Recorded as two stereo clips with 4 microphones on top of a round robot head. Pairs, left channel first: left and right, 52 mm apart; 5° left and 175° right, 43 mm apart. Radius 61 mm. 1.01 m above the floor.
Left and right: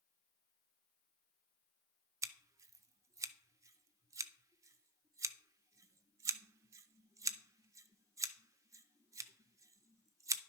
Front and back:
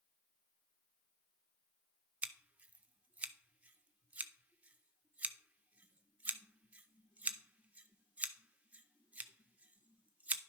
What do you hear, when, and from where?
2.2 s scissors: 115° right, 0.5 m